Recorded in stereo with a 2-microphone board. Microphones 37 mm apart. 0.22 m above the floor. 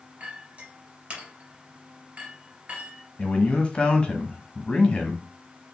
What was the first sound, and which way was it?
A clink, 30° right (ahead or behind).